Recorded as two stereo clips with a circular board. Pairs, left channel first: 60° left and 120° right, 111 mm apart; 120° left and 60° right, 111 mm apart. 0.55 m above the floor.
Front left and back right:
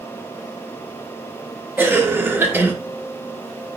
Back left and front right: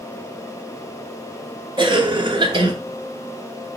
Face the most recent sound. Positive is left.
turn(degrees=-55)